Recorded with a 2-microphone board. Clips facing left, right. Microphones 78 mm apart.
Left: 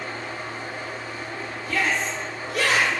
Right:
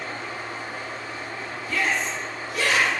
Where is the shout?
55° left (ahead or behind), 0.7 m.